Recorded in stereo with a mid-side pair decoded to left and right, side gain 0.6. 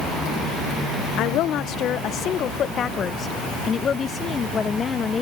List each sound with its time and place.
1.2 s a woman speaking: 65° left; by 5.2 s 30° left